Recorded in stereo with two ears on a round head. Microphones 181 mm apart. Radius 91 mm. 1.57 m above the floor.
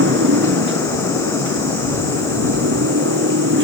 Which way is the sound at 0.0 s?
65° right (ahead or behind).